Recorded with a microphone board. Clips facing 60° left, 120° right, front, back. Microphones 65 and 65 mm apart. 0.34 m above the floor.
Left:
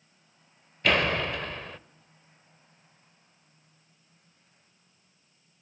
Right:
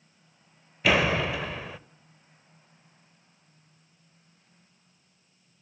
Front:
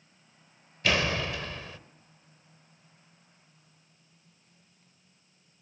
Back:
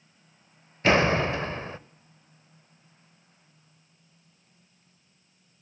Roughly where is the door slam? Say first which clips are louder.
Right 2 dB, back 7 dB; behind.